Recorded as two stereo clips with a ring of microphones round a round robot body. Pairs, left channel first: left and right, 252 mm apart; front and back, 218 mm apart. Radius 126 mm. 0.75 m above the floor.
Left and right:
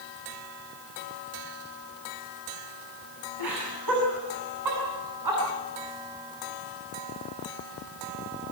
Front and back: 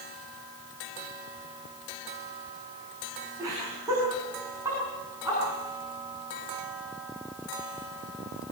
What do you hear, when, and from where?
3.4 s laughter: 100° right, 6 m